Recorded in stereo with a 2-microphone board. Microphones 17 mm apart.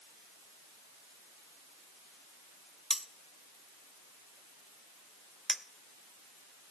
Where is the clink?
5° right (ahead or behind), 0.7 m.